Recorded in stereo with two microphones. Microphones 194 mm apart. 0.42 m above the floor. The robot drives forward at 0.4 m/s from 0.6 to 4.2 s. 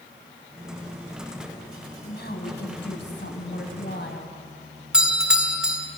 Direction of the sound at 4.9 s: 5° right (ahead or behind).